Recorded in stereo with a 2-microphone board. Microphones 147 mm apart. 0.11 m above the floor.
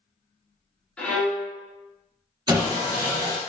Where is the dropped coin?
No dropped coin in this recording.